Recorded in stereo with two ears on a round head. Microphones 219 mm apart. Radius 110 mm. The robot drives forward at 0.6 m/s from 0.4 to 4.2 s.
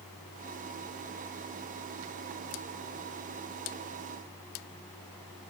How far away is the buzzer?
I don't hear a buzzer.